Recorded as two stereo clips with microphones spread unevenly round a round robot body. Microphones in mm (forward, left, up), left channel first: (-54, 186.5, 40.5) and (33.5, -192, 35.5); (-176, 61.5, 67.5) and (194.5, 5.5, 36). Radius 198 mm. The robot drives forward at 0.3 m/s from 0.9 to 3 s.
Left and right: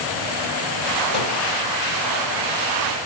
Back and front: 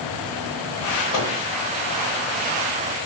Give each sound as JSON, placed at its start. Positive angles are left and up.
{"t": 1.1, "sound": "a microwave", "azimuth_deg": 160, "distance_m": 1.1}